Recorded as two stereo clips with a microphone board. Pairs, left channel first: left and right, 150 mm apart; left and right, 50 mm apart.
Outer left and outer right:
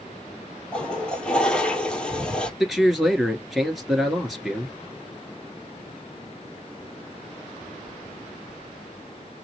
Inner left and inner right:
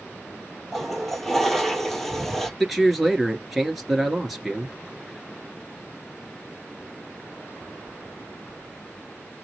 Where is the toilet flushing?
5° left (ahead or behind), 1.1 m.